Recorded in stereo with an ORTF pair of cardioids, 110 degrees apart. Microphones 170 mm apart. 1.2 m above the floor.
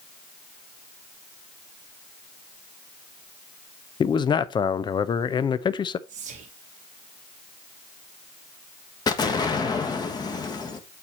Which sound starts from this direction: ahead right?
Whispering, at 6.1 s.